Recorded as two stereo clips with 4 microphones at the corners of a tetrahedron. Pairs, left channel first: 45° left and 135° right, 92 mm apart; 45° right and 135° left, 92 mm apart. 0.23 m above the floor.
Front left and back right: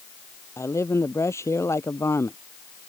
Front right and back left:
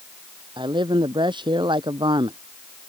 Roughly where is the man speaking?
Left.